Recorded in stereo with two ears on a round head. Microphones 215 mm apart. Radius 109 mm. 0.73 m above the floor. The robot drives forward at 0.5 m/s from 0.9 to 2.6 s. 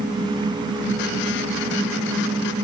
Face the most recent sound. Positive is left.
No sound to turn to.